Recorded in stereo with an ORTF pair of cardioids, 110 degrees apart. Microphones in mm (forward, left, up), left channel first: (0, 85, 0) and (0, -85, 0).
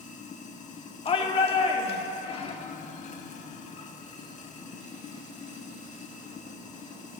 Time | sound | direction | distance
0.0 | running water | 45° left | 1.2 m
1.1 | a shout | 35° left | 1.2 m